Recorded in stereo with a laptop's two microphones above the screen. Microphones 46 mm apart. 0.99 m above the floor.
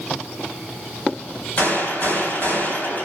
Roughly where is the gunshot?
Left.